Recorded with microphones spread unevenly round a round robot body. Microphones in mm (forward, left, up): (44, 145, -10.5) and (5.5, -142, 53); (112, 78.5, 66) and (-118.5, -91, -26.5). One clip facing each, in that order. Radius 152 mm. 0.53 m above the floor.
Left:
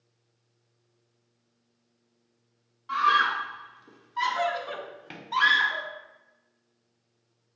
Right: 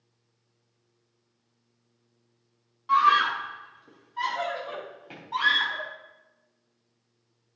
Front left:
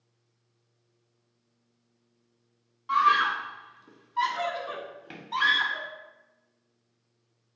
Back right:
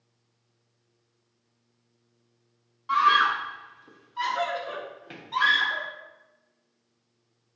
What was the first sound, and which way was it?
A scream, 175° left.